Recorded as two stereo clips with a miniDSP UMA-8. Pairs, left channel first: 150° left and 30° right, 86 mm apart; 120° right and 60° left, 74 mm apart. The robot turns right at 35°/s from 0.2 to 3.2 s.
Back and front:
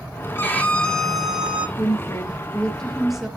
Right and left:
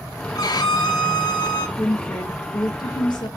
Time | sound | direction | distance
0.3 | a violin | 150° right | 1.7 m
1.8 | a woman speaking | 165° right | 1.8 m